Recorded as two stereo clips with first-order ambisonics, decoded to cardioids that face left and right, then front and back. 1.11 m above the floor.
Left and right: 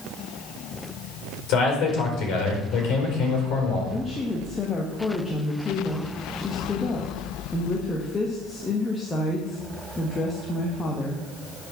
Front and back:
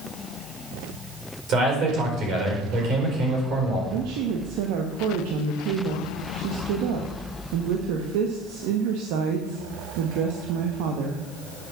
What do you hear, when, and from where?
1.5 s a man speaking: 130° left, 4.5 m
3.9 s a woman speaking: 170° left, 1.2 m